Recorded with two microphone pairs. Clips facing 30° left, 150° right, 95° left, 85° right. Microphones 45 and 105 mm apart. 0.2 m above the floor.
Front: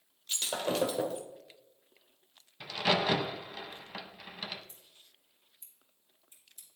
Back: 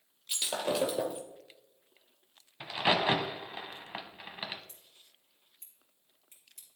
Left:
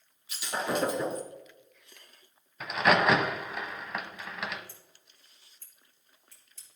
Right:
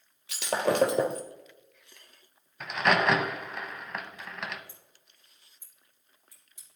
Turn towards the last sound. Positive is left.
turn(degrees=-160)